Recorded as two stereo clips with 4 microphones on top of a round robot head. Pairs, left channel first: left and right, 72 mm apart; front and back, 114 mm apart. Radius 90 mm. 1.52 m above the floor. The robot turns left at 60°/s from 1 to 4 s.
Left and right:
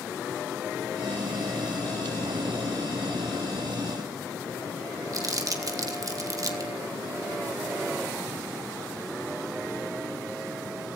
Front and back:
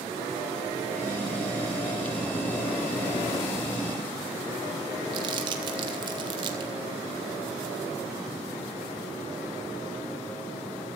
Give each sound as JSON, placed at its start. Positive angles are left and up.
{"t": 5.1, "sound": "crumpling", "azimuth_deg": -125, "distance_m": 2.0}